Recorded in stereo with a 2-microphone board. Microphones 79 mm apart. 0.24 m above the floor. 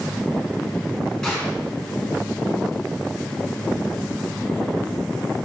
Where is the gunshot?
Centre (ahead or behind), 3 m.